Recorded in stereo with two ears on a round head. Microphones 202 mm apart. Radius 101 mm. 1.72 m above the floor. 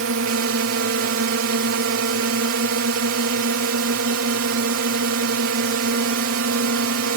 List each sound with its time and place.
0.0 s a drone: 65° right (ahead or behind)